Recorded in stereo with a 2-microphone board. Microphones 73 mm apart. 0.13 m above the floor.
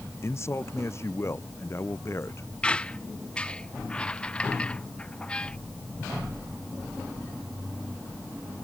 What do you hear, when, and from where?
0.2 s a man speaking: 40° left (ahead or behind)
2.6 s a squeak: 15° left (ahead or behind)